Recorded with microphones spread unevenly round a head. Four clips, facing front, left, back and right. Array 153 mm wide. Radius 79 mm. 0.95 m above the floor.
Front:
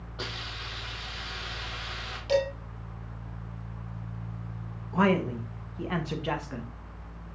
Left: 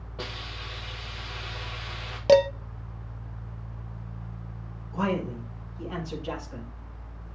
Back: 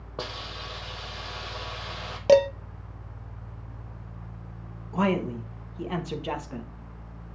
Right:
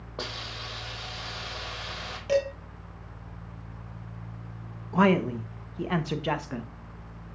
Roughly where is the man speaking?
Right.